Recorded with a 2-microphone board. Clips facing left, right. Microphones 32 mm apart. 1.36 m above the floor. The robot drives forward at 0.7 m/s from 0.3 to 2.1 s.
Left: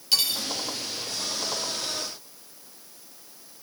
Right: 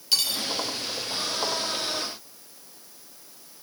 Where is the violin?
I don't hear a violin.